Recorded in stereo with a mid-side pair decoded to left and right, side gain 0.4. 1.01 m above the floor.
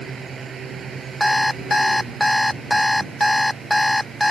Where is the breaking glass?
I don't hear breaking glass.